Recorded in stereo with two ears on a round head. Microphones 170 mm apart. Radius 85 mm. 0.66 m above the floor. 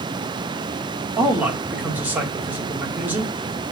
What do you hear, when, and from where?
1.2 s a man speaking: 10° right (ahead or behind), 1.4 m